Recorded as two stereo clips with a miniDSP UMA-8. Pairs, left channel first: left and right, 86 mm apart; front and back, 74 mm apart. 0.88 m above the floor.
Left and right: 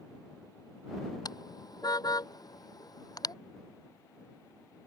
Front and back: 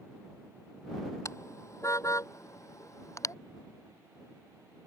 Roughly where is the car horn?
Ahead left.